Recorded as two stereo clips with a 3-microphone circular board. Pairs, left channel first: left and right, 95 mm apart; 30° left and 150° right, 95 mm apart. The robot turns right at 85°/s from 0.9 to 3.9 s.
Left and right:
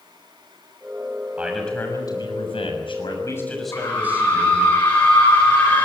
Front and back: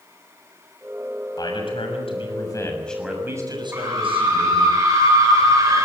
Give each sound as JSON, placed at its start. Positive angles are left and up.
{"t": 1.4, "sound": "a man speaking", "azimuth_deg": -15, "distance_m": 6.5}
{"t": 3.7, "sound": "a scream", "azimuth_deg": 145, "distance_m": 3.5}